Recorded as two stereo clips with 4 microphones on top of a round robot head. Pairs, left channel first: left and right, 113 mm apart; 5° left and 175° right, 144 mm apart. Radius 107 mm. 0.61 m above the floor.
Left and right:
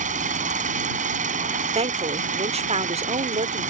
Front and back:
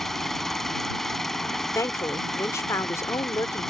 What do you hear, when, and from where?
0.0 s an engine running: 85° right
1.8 s a woman speaking: 70° right